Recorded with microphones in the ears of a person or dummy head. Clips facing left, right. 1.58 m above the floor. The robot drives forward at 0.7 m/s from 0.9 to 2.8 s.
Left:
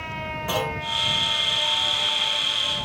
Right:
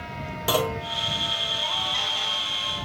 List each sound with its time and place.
0.5 s a clunk: 55° right (ahead or behind), 1.9 m